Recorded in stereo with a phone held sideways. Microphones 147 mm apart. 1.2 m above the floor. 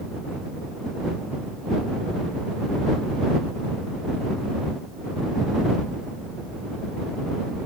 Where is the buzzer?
No buzzer in this recording.